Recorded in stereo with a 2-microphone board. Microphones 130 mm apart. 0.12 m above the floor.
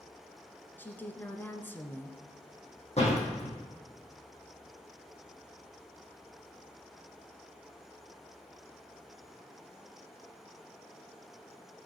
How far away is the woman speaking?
About 1.2 m.